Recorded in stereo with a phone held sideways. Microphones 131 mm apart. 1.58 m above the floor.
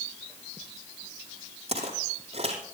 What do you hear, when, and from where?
1.7 s footsteps: 50° right (ahead or behind), 3 m